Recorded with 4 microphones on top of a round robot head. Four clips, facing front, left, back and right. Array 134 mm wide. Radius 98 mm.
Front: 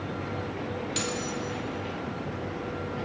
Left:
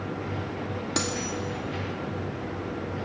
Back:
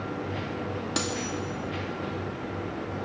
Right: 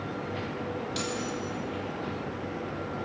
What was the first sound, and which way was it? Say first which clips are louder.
Cutlery clinking: left 2 dB, back 1 dB; 125° left.